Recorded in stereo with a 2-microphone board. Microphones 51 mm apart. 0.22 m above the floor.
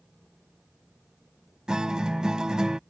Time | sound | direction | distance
1.7 | a guitar | 15° right (ahead or behind) | ?